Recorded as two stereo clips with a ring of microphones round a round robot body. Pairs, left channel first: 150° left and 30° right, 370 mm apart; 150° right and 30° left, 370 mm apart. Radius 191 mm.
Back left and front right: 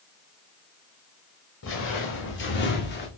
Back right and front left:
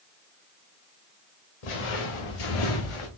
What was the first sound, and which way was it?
Footsteps, 150° right.